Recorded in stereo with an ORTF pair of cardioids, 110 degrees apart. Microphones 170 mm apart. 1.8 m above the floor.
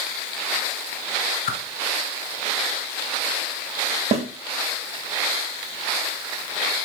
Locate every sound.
1.5 s a whoosh: 60° left, 0.8 m
4.1 s a snare drum: 40° right, 0.6 m